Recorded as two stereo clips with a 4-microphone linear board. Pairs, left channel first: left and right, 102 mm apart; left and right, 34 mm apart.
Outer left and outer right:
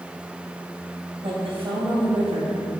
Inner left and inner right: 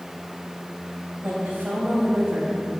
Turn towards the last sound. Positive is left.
turn(degrees=-60)  # may be behind; listen again after turning